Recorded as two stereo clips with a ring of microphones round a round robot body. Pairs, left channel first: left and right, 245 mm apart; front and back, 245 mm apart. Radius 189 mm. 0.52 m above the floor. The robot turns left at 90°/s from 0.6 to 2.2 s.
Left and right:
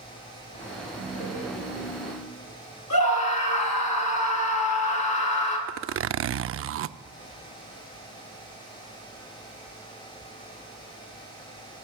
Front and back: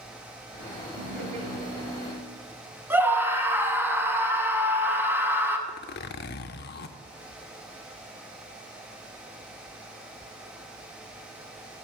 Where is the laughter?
150° right, 8.5 m; by 2.3 s 100° left, 8.5 m.